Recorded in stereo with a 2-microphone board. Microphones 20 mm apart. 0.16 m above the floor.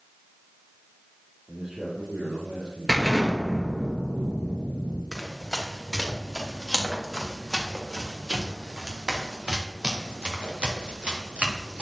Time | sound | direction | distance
1.5 | a man speaking | 65° right (ahead or behind) | 5.5 m
2.9 | an explosion | 5° left (ahead or behind) | 2.5 m
5.1 | running footsteps | 10° left (ahead or behind) | 5 m